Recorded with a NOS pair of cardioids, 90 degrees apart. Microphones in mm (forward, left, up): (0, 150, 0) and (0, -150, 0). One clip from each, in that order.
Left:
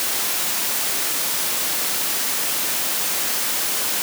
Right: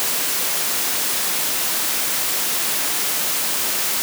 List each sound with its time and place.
Only background noise.